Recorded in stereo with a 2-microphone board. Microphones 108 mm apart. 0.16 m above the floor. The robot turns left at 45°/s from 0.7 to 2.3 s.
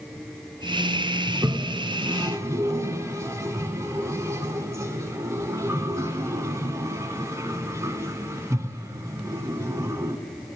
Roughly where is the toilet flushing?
Right.